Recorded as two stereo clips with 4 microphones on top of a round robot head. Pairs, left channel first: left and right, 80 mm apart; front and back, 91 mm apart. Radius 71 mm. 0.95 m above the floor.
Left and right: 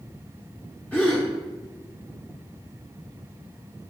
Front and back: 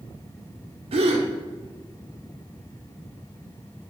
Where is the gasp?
170° left, 1.1 m.